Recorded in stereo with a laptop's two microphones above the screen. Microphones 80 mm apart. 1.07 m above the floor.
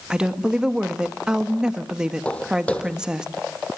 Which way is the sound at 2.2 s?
15° left (ahead or behind).